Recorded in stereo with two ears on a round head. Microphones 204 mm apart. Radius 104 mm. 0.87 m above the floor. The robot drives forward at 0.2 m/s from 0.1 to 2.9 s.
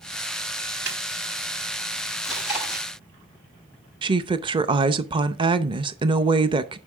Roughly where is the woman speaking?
Right.